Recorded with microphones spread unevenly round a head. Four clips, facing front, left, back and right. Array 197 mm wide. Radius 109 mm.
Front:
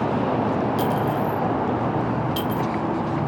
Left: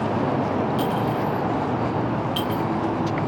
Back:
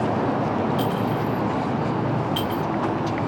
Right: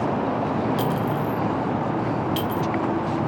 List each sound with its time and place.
0.8 s a clink: 45° right, 0.9 m